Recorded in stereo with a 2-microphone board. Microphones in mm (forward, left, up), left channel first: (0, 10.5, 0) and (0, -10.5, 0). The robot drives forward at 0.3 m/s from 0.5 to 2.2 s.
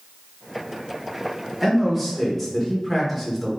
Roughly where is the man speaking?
Centre.